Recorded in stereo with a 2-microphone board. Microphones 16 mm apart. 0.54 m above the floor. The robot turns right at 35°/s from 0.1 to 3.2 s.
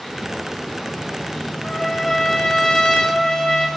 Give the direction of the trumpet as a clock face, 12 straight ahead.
11 o'clock.